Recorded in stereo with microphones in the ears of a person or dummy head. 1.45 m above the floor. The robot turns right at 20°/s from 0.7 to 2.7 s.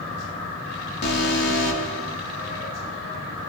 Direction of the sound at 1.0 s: 45° left (ahead or behind).